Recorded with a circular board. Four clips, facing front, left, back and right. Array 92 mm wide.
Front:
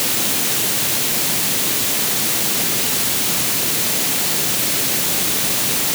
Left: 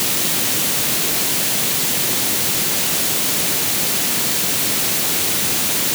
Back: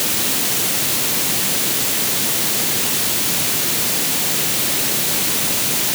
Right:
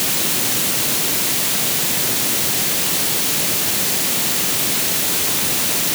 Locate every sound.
Only background noise.